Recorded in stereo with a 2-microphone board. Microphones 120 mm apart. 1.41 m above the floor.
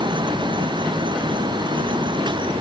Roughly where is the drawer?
I don't hear a drawer.